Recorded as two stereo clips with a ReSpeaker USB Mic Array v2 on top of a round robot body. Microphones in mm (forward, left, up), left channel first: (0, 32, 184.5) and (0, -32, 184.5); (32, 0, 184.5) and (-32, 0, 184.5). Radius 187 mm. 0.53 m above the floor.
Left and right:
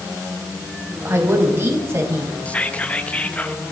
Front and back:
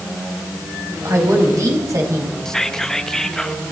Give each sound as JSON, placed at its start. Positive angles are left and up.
{"t": 1.1, "sound": "a woman speaking", "azimuth_deg": -140, "distance_m": 4.0}
{"t": 2.5, "sound": "whispering", "azimuth_deg": 70, "distance_m": 1.3}